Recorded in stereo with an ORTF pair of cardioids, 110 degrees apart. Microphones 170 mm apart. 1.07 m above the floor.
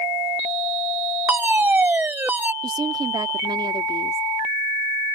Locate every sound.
1.3 s a fire alarm: 10° right
2.6 s a woman speaking: 25° right